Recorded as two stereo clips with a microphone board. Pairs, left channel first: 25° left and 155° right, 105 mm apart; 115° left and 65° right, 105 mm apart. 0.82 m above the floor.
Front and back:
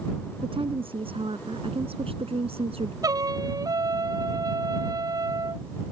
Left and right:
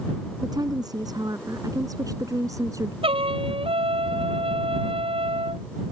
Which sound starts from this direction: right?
A trumpet, at 3.0 s.